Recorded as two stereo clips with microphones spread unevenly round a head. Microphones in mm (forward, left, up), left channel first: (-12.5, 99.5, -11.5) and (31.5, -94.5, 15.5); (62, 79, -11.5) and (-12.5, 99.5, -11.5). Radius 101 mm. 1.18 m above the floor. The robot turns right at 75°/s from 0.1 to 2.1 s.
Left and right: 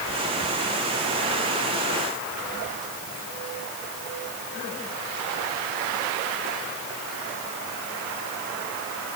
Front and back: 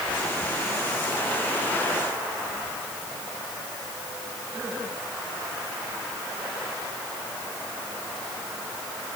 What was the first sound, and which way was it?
Only background noise.